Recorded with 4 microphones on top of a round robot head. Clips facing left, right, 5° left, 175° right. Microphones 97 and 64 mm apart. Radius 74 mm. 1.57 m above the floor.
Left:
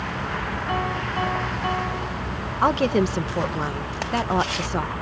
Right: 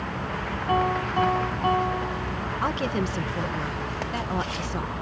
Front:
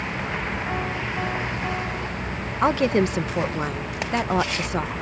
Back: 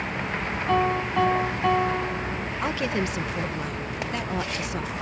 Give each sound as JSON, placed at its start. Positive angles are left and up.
{"t": 0.7, "sound": "a piano", "azimuth_deg": -150}
{"t": 2.6, "sound": "a woman speaking", "azimuth_deg": 50}